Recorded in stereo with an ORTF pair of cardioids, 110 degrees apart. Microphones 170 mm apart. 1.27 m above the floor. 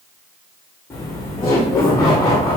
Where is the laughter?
15° left, 0.7 m.